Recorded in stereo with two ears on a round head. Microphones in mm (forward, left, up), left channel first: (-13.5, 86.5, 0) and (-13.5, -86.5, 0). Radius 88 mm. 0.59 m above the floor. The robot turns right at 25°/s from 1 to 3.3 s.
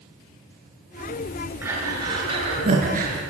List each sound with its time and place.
1.6 s breathing: 10° right (ahead or behind), 8 m; by 3.1 s 50° right (ahead or behind), 8 m